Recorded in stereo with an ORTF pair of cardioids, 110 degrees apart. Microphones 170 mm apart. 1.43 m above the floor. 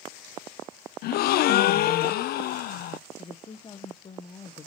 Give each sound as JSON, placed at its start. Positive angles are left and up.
{"t": 1.0, "sound": "a gasp", "azimuth_deg": 70, "distance_m": 0.6}
{"t": 3.2, "sound": "a woman speaking", "azimuth_deg": 25, "distance_m": 0.8}